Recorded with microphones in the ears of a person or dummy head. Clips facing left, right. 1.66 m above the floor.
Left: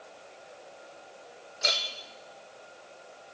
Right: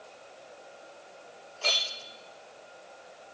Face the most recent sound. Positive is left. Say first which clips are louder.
# even
turn(degrees=20)  # may be behind; listen again after turning